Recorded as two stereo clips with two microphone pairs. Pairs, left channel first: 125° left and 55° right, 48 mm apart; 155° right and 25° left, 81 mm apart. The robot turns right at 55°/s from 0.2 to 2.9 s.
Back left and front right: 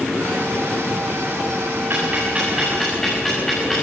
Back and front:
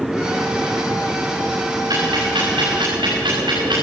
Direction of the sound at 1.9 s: 10° right.